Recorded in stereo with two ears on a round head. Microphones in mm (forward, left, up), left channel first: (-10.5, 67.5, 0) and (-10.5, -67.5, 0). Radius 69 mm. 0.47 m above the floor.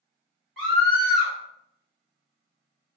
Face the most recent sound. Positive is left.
turn(degrees=0)  # may be behind; listen again after turning